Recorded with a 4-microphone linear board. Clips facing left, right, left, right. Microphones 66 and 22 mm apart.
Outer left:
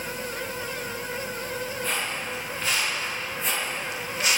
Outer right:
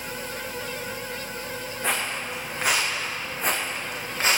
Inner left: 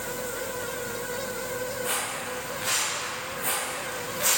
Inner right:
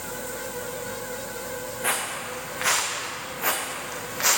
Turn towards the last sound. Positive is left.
turn(degrees=-35)  # may be behind; listen again after turning